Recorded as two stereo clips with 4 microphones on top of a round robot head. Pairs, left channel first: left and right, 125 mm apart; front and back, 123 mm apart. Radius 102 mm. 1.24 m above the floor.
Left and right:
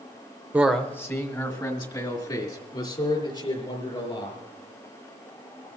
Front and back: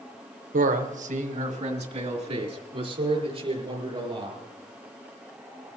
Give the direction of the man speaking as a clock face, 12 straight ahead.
6 o'clock.